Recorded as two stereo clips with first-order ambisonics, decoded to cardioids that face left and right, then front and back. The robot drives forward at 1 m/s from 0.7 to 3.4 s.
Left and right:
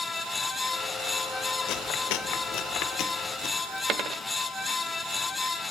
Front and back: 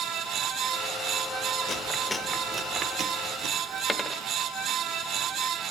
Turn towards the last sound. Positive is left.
turn(degrees=-85)